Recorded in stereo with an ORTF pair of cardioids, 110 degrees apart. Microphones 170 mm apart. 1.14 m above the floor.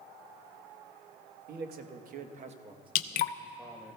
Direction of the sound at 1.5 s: 70° right.